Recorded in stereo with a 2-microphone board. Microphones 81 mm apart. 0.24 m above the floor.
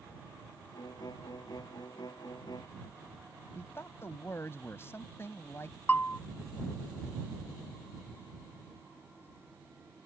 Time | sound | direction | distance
0.7 | a violin | 60° left (ahead or behind) | ?
3.5 | a man speaking | 35° left (ahead or behind) | ?
5.9 | a bell | 25° left (ahead or behind) | ?